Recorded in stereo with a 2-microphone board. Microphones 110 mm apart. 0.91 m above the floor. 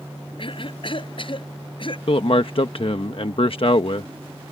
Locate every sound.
0.4 s a cough: 50° left (ahead or behind)
2.1 s a man speaking: 55° left (ahead or behind)